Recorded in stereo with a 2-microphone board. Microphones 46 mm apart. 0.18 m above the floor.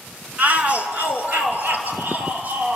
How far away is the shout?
About 1.5 m.